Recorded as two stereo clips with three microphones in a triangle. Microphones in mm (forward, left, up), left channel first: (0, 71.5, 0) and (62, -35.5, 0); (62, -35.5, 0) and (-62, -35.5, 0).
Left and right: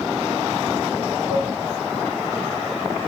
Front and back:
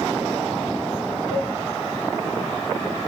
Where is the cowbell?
145° right, 4 m.